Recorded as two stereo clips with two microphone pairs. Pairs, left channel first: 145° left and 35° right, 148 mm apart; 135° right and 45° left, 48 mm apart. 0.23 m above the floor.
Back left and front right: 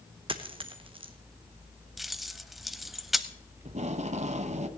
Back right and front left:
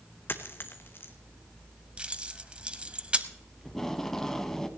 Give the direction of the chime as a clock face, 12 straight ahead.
I don't hear a chime.